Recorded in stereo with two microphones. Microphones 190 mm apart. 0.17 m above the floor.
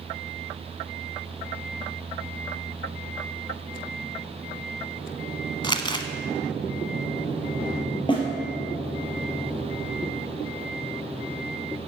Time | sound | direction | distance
5.6 | crumpling | 25° left (ahead or behind) | 0.9 m
8.1 | a snare drum | 25° left (ahead or behind) | 3.5 m